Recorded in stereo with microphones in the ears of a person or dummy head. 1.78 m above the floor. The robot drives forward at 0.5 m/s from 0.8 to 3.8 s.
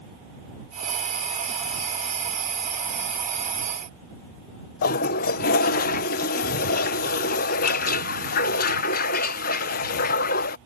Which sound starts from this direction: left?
A toilet flushing, at 4.8 s.